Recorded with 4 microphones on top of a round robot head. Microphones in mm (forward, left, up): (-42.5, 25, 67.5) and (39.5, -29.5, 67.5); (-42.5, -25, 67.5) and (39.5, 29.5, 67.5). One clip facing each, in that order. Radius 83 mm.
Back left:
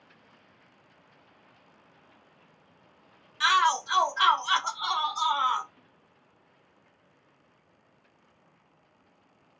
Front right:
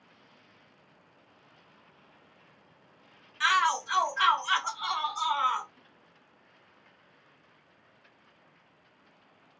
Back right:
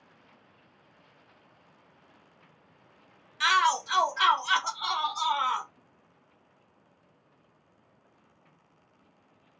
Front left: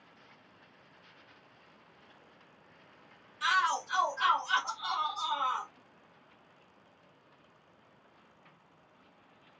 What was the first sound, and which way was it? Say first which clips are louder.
A shout: back left 2 dB, back right 5 dB; 140° right.